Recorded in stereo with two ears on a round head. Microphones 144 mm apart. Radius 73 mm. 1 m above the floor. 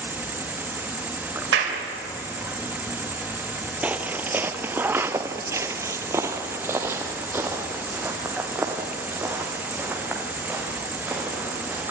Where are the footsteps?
10° right (ahead or behind), 1.2 m.